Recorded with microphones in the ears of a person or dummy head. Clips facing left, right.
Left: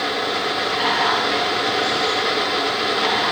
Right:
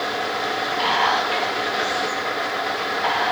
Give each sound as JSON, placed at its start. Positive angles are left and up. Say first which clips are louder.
{"t": 0.8, "sound": "whispering", "louder": "even", "side_deg": 25, "distance_m": 1.9}